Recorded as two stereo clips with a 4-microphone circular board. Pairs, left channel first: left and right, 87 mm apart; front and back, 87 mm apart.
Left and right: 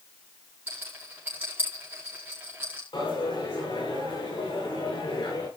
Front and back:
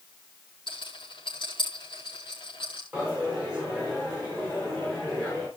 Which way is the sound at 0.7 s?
20° right.